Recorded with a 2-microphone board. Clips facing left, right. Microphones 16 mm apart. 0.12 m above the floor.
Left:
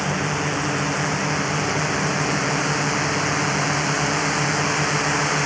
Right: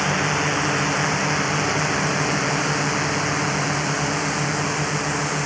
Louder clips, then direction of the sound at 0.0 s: Right 2 dB; 15° right (ahead or behind).